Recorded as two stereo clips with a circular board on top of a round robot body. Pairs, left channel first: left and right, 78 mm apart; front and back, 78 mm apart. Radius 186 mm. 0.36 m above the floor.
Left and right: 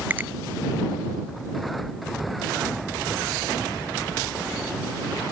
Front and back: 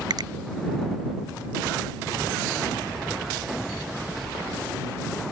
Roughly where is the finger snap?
Behind right.